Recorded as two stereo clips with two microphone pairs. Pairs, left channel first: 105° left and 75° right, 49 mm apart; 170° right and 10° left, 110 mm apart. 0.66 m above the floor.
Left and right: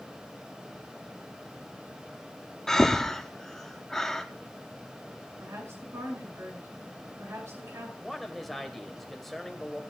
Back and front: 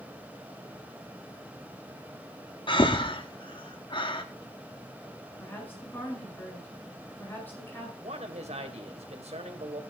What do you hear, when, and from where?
2.7 s breathing: 175° right, 1.3 m
5.4 s a woman speaking: 95° right, 9.5 m
8.0 s a man speaking: 15° left, 2.5 m